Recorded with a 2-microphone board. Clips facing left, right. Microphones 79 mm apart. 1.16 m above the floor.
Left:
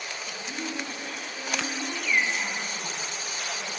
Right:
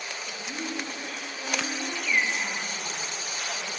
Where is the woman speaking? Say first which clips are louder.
Even; 20° left (ahead or behind), 5.5 m; by 3.8 s 5° left (ahead or behind), 8.5 m.